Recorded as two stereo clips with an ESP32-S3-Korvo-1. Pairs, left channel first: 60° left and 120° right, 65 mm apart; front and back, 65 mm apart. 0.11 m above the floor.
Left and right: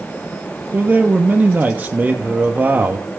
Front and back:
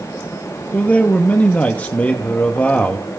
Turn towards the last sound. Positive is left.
turn(degrees=-65)